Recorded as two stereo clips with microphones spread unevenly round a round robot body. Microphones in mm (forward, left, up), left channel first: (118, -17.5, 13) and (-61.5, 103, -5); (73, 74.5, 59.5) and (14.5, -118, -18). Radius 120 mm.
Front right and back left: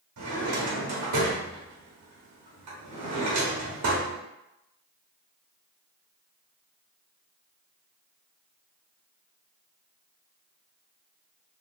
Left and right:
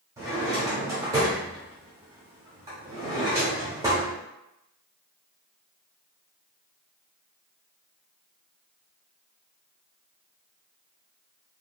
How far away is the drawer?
About 0.8 m.